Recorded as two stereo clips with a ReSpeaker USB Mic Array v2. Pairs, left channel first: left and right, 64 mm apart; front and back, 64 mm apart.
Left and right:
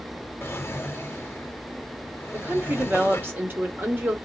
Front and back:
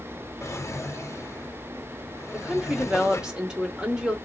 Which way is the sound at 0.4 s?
40° left.